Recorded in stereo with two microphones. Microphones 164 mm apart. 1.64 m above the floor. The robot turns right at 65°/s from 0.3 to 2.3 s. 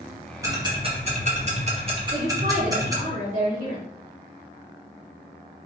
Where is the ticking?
20° right (ahead or behind), 1.0 m.